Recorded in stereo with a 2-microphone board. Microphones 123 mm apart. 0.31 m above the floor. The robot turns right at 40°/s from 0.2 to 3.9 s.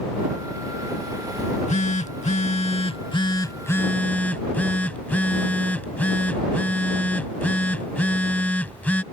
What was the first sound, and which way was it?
A phone buzzing, 65° left.